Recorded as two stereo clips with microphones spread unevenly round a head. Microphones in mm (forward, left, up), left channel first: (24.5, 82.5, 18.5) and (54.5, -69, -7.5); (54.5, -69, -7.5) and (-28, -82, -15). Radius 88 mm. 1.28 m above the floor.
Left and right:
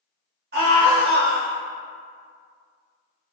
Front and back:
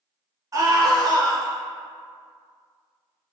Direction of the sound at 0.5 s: 120° right.